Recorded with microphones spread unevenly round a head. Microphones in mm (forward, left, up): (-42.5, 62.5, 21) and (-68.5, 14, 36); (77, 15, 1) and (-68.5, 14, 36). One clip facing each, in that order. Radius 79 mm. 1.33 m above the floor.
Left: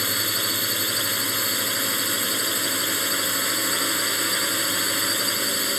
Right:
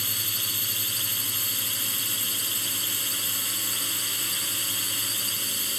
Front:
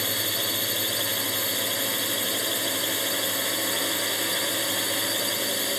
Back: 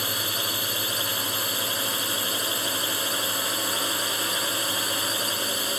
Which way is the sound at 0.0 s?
80° left.